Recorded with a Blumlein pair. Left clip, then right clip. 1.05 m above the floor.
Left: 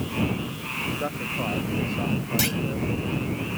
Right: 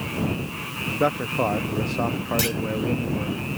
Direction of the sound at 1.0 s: 65° right.